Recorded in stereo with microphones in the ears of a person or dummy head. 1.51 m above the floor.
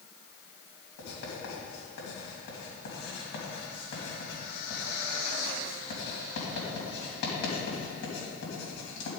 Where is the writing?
60° left (ahead or behind), 2.5 m.